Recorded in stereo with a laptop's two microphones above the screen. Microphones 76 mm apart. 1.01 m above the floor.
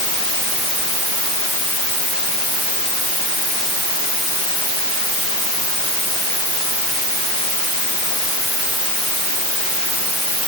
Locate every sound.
Only background noise.